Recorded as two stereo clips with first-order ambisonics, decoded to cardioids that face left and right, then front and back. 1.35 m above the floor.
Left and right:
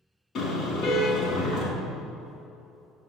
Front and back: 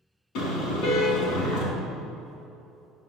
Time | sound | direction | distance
0.3 | a car horn | 30° left | 5 m